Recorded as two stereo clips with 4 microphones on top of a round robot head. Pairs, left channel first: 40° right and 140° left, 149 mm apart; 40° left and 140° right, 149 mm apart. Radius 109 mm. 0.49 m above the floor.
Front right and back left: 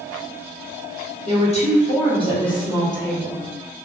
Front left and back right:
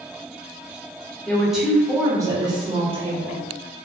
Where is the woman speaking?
40° right, 1.1 m; by 3.4 s 105° right, 1.6 m.